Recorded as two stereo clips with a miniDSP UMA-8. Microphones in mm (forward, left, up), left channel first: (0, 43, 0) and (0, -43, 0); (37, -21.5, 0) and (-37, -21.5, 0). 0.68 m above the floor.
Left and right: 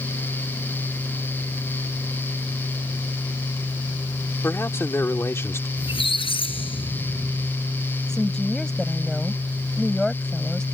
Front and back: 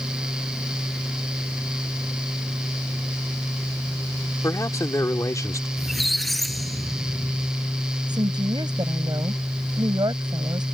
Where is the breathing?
No breathing in this recording.